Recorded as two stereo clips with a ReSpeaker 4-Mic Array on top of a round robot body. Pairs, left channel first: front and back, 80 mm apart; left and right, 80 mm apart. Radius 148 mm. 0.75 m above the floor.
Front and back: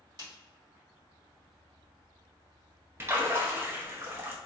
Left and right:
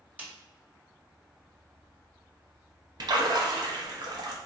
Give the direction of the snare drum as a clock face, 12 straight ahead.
5 o'clock.